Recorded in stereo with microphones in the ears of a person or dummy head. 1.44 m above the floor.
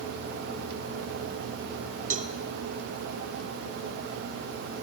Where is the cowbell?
45° right (ahead or behind), 1.2 m.